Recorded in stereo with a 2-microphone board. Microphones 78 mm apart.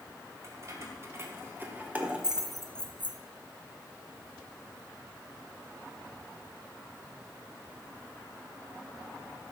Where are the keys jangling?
40° right (ahead or behind), 2.5 m; by 3.2 s 35° left (ahead or behind), 0.9 m.